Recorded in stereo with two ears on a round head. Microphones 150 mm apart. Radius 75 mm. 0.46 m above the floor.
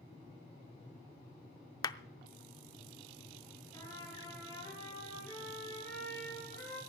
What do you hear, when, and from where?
1.8 s a clap: 20° left (ahead or behind), 0.5 m
3.7 s a trumpet: 20° left (ahead or behind), 6 m